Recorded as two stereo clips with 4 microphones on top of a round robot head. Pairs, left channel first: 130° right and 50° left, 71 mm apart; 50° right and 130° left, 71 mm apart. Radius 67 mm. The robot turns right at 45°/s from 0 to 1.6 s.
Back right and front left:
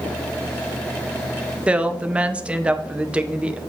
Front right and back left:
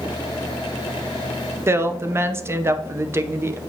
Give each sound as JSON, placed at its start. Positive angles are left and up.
{"t": 1.7, "sound": "a woman speaking", "azimuth_deg": 110, "distance_m": 0.6}